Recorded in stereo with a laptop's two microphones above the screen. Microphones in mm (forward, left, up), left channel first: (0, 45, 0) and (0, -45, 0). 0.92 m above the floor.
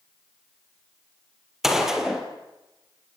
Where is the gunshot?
5° right (ahead or behind), 4.5 m.